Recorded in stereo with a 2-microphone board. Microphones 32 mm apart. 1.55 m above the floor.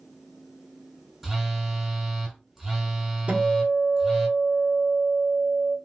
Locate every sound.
1.2 s a phone buzzing: 10° right (ahead or behind), 1.5 m
3.3 s a guitar: 40° right (ahead or behind), 1.1 m